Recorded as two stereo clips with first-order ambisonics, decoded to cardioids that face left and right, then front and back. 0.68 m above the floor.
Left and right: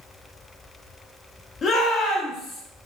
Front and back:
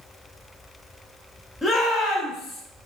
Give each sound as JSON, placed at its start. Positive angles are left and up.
{"t": 1.6, "sound": "a shout", "azimuth_deg": 60, "distance_m": 0.5}